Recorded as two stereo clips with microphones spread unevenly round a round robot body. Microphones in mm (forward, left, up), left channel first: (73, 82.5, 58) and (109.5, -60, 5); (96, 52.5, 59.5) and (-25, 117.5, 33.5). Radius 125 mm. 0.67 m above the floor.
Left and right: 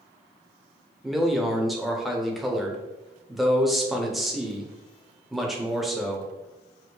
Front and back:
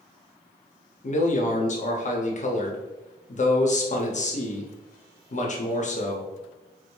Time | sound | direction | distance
1.0 | a man speaking | straight ahead | 0.9 m